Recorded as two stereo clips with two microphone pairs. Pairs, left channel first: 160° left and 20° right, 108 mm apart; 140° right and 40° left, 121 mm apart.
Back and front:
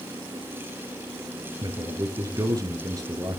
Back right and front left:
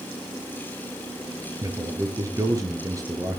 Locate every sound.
1.6 s a man speaking: 5° left, 1.9 m